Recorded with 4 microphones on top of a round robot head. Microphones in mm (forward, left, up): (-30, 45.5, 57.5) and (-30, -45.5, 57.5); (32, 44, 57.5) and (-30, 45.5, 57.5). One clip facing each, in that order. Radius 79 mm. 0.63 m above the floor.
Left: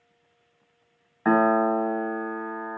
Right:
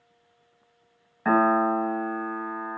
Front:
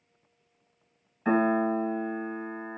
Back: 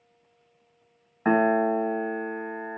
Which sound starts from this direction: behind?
A piano, at 1.2 s.